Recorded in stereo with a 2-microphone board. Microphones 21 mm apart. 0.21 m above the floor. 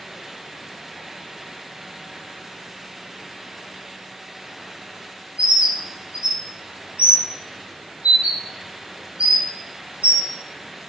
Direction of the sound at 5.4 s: 80° right.